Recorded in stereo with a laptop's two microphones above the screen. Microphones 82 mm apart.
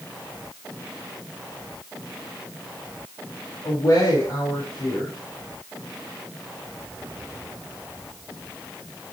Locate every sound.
3.6 s a woman speaking: 65° left (ahead or behind), 4.5 m